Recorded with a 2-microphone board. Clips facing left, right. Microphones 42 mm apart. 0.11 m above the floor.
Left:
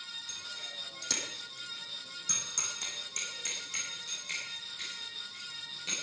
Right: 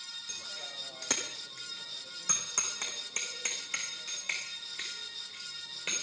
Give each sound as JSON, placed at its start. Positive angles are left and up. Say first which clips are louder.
{"t": 0.3, "sound": "a bicycle bell", "louder": "even", "side_deg": -35, "distance_m": 2.5}